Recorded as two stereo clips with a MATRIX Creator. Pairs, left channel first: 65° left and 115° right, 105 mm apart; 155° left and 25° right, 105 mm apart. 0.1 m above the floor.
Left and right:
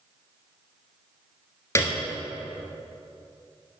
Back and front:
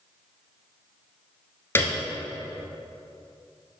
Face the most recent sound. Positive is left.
turn(degrees=110)